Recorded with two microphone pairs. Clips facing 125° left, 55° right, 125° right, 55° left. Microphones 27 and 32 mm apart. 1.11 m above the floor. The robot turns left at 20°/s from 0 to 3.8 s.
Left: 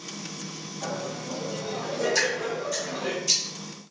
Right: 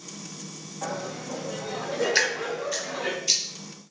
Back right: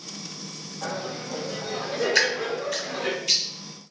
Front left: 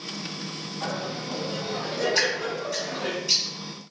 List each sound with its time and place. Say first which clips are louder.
0.8 s laughter: even, even; 10° right, 1.3 m; by 3.1 s 55° right, 1.3 m
2.1 s dripping: right 1 dB, back right 2 dB; 105° right, 0.7 m; by 3.4 s 130° right, 0.7 m